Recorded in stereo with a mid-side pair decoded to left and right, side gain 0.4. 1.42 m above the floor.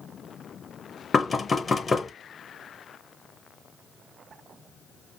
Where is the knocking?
35° left, 0.9 m.